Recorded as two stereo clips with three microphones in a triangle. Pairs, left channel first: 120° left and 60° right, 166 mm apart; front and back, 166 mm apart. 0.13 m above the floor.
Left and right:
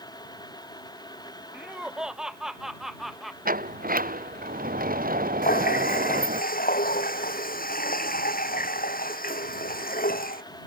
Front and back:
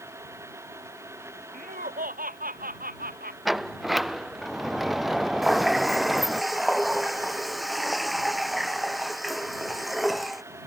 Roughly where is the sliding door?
Right.